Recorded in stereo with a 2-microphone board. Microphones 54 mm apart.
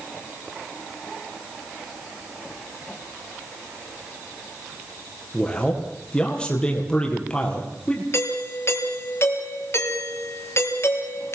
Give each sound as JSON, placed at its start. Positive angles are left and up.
{"t": 5.3, "sound": "a man speaking", "side_deg": 15, "distance_m": 5.5}
{"t": 8.1, "sound": "a doorbell", "side_deg": 50, "distance_m": 4.5}